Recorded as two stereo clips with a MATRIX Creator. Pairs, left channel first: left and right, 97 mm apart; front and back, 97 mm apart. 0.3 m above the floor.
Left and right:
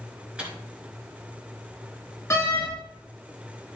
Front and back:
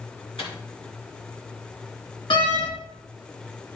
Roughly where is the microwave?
Ahead.